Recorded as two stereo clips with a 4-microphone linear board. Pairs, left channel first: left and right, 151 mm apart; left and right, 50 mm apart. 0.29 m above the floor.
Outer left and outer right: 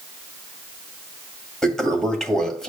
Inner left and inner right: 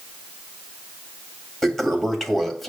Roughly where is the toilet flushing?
Centre.